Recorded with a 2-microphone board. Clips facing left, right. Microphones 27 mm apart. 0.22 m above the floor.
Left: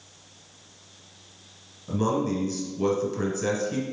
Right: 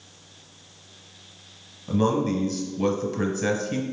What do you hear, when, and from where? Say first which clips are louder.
1.9 s a man speaking: right 3 dB; 15° right (ahead or behind), 1.2 m